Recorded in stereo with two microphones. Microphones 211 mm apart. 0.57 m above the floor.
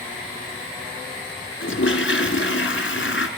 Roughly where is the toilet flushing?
Left.